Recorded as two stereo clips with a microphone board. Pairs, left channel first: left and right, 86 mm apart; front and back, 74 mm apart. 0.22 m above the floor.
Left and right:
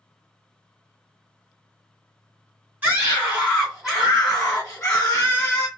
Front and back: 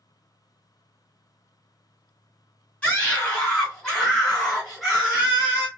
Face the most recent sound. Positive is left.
turn(degrees=115)